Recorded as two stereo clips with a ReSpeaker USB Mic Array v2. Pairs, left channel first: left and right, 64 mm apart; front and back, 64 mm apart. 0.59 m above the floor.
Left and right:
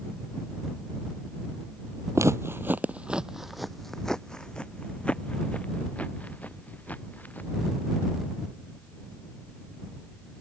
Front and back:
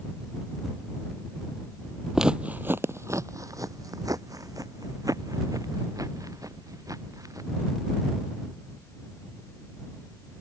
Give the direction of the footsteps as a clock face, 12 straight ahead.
3 o'clock.